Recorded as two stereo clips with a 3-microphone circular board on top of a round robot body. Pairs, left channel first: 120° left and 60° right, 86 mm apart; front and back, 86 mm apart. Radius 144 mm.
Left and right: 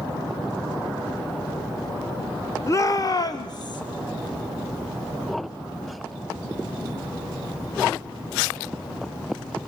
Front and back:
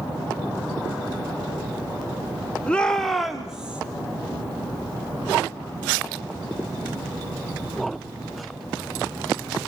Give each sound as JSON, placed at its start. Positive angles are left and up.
{"t": 2.7, "sound": "a shout", "azimuth_deg": 75, "distance_m": 1.4}